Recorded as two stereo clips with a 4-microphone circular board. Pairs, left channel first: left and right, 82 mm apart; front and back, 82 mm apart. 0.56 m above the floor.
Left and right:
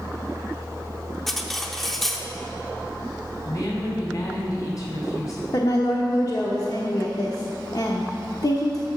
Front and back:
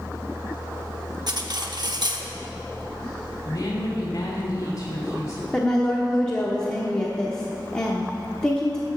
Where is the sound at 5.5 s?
80° left, 1.0 m.